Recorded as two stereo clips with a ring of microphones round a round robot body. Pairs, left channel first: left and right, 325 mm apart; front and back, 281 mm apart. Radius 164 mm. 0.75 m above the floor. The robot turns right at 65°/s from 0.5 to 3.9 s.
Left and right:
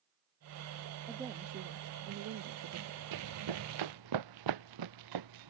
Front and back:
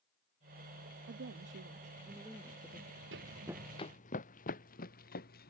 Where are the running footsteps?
125° right; by 5.5 s 65° right.